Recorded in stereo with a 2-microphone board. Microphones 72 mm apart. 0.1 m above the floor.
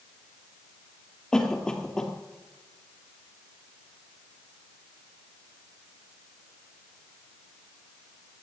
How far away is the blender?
I don't hear a blender.